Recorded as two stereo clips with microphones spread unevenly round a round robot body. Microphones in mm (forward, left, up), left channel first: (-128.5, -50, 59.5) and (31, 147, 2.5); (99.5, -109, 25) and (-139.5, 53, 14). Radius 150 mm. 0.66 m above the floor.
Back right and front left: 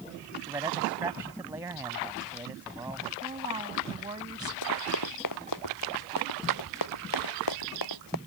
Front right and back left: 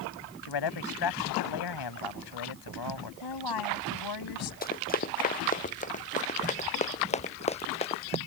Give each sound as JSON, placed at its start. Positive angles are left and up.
{"t": 0.4, "sound": "a man speaking", "azimuth_deg": -30}
{"t": 3.2, "sound": "a woman speaking", "azimuth_deg": -25}
{"t": 4.6, "sound": "running footsteps", "azimuth_deg": -95}